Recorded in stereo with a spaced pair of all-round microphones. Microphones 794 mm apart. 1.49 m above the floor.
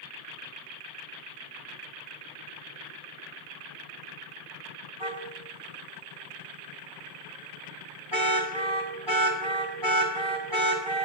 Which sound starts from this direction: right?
A car horn, at 5.0 s.